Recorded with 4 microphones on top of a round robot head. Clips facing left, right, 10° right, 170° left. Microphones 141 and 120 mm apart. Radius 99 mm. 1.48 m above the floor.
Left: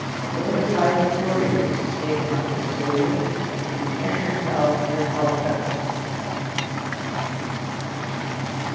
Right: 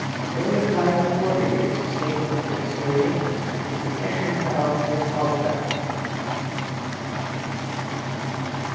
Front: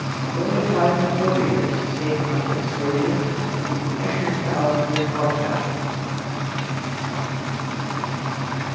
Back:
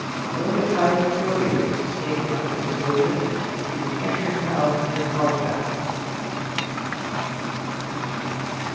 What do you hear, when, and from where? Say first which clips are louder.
0.2 s a man speaking: even, front 1 dB; 10° right, 2.5 m